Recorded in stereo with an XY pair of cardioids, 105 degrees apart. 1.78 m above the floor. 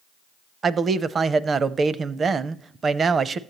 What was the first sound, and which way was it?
A man speaking, 40° right.